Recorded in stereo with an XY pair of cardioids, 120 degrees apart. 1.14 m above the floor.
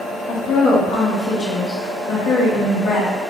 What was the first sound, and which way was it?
A woman speaking, 65° left.